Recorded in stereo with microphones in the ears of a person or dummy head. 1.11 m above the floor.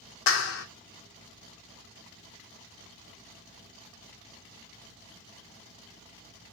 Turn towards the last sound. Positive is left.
turn(degrees=60)  # may be behind; listen again after turning